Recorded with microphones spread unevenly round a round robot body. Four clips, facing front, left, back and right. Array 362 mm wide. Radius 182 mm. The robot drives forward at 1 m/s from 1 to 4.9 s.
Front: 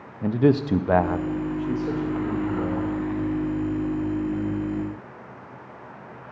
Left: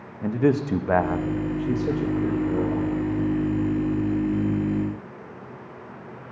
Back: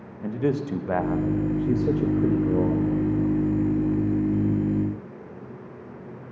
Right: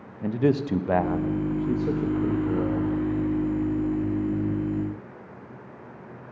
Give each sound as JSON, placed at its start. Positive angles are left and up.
{"t": 0.2, "sound": "a man speaking", "azimuth_deg": 25, "distance_m": 0.7}